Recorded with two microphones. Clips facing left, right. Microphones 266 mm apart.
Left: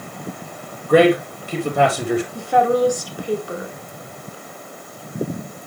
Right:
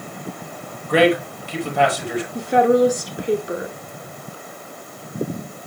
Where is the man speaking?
50° left (ahead or behind), 3.5 m.